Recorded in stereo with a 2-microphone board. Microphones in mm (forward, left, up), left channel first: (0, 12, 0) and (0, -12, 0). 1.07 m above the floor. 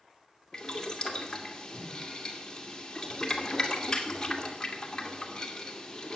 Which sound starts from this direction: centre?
Boiling, at 0.5 s.